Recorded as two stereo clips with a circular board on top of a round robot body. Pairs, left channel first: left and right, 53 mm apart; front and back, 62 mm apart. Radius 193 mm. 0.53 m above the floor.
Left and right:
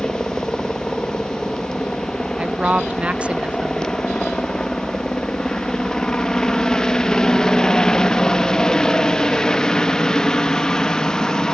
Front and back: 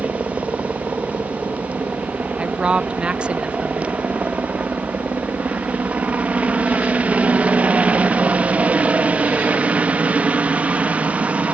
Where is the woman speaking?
125° right.